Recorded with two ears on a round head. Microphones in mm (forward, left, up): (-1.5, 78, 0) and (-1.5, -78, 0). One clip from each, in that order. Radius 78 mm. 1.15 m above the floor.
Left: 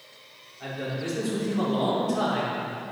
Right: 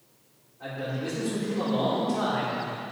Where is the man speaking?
75° left (ahead or behind), 3.5 m; by 2.6 s 60° left (ahead or behind), 4 m.